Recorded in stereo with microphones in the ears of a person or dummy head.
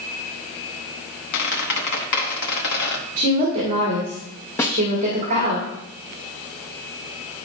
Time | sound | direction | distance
1.3 | a squeak | 60° left (ahead or behind) | 1.0 m
3.2 | a woman speaking | 45° right (ahead or behind) | 1.9 m
4.6 | a snare drum | 15° left (ahead or behind) | 0.9 m